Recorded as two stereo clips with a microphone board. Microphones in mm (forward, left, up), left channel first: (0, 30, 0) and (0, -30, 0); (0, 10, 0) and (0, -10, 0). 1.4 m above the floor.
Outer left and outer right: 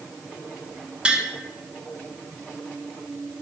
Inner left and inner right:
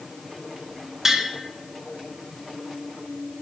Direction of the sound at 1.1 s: 15° right (ahead or behind).